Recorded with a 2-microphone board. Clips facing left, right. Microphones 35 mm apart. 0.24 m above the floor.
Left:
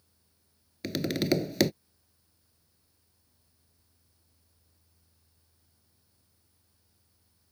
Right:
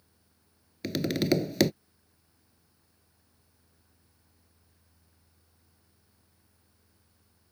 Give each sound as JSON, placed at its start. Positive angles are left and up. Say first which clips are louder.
{"t": 0.8, "sound": "tapping", "louder": "right 1 dB", "side_deg": 0}